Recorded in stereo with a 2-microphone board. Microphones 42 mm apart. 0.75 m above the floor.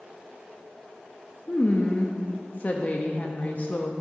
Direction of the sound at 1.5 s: 40° left (ahead or behind).